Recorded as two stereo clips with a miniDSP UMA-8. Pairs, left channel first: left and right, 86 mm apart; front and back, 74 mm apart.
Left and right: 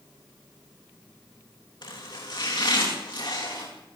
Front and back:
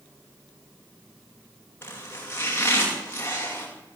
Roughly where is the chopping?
Ahead left.